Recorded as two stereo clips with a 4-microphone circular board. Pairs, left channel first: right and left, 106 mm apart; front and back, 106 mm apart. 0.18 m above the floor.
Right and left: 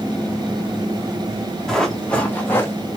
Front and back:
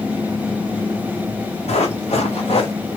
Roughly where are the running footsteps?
Ahead.